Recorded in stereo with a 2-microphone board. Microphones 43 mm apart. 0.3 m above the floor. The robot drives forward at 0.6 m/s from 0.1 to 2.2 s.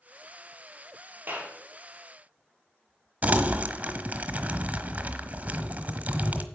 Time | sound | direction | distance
1.3 | a clap | 50° right (ahead or behind) | 6 m
3.2 | crumpling | 40° right (ahead or behind) | 1.2 m